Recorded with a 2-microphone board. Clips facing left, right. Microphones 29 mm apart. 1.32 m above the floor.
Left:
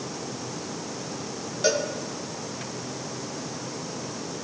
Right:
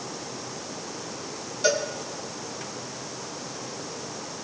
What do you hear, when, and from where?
1.6 s a cowbell: 10° left (ahead or behind), 3.5 m